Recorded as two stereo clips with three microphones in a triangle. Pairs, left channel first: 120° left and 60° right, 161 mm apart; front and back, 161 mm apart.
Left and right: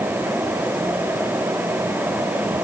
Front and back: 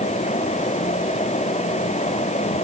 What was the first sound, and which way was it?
Only background noise.